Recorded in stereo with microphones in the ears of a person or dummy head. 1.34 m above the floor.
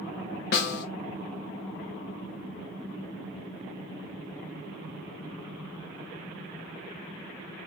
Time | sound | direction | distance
0.5 | a snare drum | 55° left (ahead or behind) | 0.6 m